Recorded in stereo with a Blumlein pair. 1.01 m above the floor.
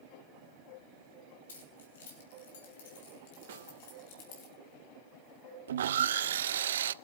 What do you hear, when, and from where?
1.5 s keys jangling: 60° left, 7 m; by 4.5 s 45° left, 7 m
3.5 s a snare drum: 55° right, 2.5 m
5.7 s sawing: 60° right, 0.6 m